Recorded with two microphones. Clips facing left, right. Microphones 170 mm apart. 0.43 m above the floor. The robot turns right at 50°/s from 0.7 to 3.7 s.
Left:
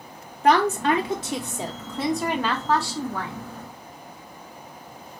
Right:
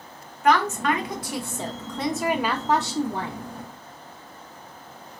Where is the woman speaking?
110° left, 0.8 m; by 3.5 s 110° right, 0.8 m.